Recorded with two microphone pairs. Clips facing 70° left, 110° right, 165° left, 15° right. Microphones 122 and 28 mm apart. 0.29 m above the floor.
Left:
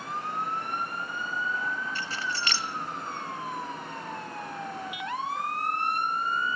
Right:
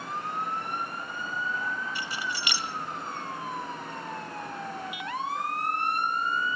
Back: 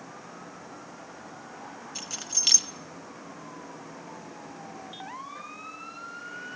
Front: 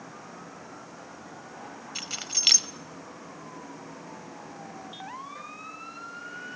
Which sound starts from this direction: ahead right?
Keys jangling, at 1.9 s.